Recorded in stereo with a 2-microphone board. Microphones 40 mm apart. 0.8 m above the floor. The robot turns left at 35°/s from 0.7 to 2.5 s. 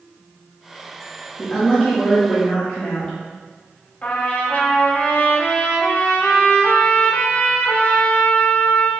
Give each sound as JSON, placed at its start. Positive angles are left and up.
{"t": 1.4, "sound": "a woman speaking", "azimuth_deg": 170, "distance_m": 0.8}
{"t": 4.0, "sound": "a trumpet", "side_deg": 45, "distance_m": 0.7}